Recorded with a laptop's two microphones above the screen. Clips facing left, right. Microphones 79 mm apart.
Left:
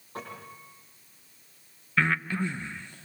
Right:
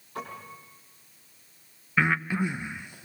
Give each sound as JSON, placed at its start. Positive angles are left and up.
{"t": 0.1, "sound": "a piano", "side_deg": 35, "distance_m": 9.0}
{"t": 2.0, "sound": "breathing", "side_deg": -10, "distance_m": 0.6}